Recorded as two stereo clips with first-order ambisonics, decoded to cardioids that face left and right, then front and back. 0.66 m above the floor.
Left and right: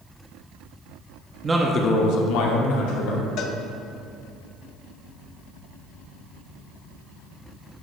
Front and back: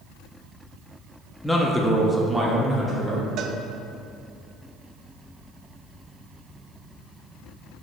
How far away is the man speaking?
About 0.6 m.